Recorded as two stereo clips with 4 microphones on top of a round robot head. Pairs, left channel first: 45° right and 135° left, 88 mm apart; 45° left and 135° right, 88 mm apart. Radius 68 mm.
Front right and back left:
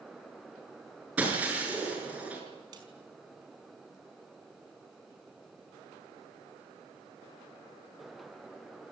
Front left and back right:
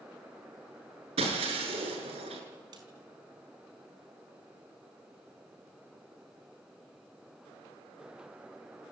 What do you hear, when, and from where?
1.2 s breaking glass: 150° right, 6.5 m
2.7 s a snare drum: straight behind, 5 m